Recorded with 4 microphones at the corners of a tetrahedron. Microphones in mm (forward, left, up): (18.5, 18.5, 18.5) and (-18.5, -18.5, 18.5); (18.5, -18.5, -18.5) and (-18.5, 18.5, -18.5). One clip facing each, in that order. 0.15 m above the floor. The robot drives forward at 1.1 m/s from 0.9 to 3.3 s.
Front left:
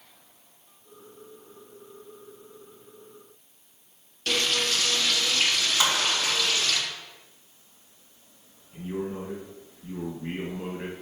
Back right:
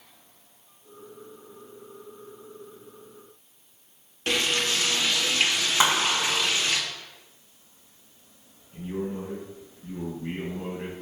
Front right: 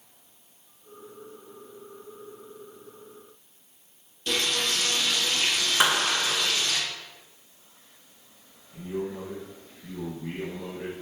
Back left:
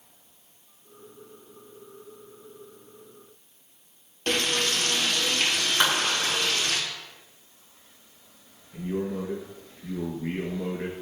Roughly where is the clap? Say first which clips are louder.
Back right 4 dB, front right 2 dB; behind right.